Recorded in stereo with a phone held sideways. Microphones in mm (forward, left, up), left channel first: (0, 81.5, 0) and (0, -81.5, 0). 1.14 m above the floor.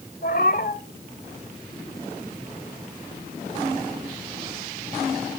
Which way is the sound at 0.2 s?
65° left (ahead or behind).